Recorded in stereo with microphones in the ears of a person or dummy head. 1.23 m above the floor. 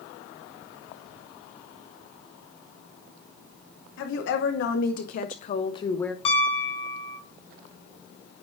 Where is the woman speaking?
75° left (ahead or behind), 2.5 m; by 6.2 s 5° left (ahead or behind), 0.8 m.